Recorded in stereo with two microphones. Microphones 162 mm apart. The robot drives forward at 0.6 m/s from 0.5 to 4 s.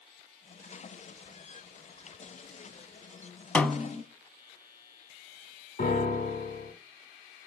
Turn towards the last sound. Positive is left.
turn(degrees=70)  # may be behind; listen again after turning